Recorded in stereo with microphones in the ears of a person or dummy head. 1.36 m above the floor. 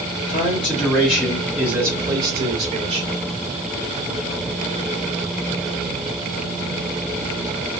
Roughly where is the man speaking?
Left.